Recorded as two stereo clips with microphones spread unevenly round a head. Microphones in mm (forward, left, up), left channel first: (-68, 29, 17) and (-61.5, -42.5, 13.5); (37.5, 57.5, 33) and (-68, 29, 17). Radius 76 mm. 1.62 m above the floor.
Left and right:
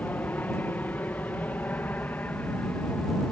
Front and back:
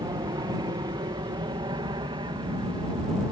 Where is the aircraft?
155° left.